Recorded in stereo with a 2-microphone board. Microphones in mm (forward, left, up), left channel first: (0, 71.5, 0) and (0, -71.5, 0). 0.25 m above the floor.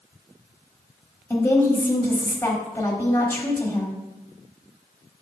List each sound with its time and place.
1.3 s a woman speaking: 15° left (ahead or behind), 1.2 m